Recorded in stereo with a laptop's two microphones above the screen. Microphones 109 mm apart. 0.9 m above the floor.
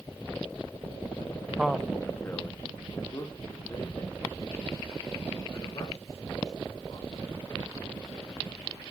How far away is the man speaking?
About 0.5 m.